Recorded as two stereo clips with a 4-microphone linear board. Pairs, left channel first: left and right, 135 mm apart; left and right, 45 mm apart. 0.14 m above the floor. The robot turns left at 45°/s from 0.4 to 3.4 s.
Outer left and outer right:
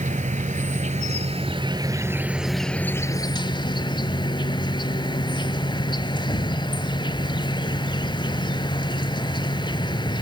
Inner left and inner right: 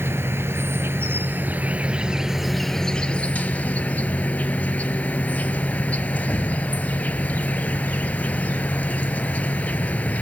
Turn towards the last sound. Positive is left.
turn(degrees=140)